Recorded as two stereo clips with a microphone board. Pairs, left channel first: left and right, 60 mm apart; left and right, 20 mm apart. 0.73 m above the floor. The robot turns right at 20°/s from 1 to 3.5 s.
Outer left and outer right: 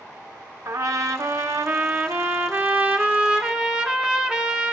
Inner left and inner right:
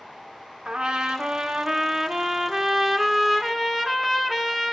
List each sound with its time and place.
0.7 s a trumpet: 65° right, 1.4 m; by 4.7 s 15° right, 1.4 m